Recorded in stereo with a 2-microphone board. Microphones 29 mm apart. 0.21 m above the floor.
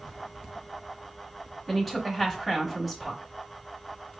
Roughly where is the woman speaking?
Centre.